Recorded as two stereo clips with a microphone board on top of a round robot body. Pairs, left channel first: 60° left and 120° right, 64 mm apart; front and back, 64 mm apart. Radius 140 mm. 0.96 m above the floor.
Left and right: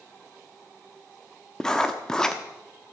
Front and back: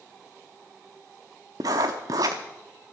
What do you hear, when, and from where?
1.6 s writing: 140° left, 0.6 m